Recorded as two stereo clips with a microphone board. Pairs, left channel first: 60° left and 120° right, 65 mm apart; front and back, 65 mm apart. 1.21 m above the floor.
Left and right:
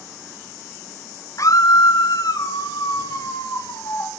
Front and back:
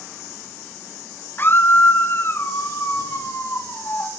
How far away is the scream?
About 0.7 m.